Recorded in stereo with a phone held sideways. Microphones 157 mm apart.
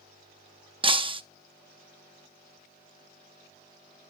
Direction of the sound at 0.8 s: 30° right (ahead or behind).